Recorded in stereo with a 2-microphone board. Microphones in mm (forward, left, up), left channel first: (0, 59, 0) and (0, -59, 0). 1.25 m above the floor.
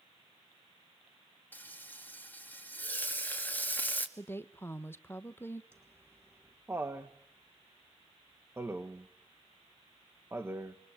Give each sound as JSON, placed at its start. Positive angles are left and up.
{"t": 1.5, "sound": "frying", "side_deg": 15, "distance_m": 1.9}
{"t": 4.2, "sound": "a woman speaking", "side_deg": 20, "distance_m": 0.9}
{"t": 5.7, "sound": "laughter", "side_deg": -20, "distance_m": 1.4}